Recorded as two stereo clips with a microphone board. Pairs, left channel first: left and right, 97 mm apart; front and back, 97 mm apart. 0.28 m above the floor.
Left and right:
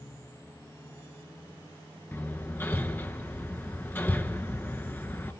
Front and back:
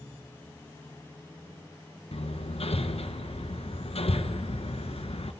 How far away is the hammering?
About 0.9 m.